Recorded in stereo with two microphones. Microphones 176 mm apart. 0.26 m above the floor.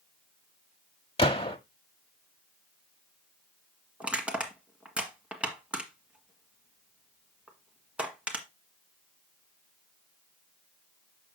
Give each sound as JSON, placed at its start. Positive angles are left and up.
{"t": 1.2, "sound": "a gunshot", "side_deg": 30, "distance_m": 1.1}
{"t": 4.0, "sound": "crushing", "side_deg": -5, "distance_m": 1.7}